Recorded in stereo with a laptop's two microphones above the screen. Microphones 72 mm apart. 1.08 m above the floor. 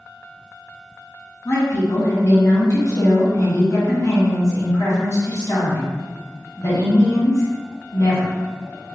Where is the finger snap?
No finger snap in this recording.